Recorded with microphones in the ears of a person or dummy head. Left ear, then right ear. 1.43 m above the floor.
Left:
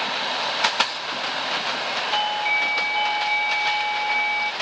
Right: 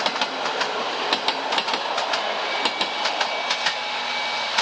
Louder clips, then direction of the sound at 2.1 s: Left 2 dB; 35° left (ahead or behind).